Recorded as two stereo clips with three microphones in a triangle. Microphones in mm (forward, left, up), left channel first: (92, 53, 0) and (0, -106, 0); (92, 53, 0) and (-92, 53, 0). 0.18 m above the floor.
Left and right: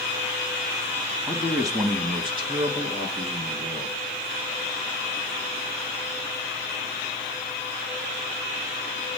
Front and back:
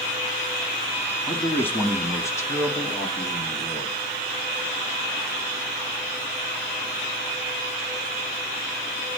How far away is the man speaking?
About 1.1 m.